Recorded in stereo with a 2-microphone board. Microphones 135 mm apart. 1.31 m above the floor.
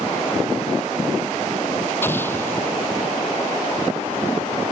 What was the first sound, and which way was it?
An explosion, 15° left (ahead or behind).